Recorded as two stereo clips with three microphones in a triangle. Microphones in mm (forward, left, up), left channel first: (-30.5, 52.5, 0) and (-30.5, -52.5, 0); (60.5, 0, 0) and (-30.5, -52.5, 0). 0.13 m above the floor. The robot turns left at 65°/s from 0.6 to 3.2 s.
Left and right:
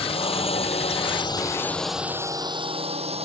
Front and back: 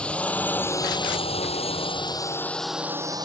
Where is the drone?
110° left; by 3.2 s 100° right.